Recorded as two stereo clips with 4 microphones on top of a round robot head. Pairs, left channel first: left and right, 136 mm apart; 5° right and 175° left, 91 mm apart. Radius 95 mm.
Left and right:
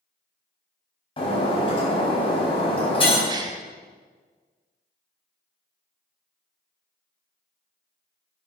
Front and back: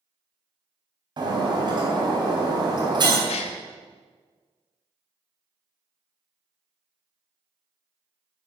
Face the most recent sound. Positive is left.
turn(degrees=-25)